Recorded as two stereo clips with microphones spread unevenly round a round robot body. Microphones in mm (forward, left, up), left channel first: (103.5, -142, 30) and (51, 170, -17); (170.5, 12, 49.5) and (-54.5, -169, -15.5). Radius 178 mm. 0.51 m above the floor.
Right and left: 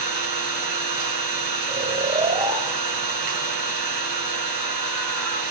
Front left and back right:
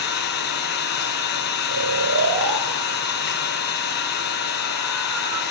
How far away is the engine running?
About 5.5 m.